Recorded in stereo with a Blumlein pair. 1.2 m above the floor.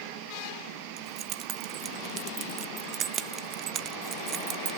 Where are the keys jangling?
30° right, 0.7 m.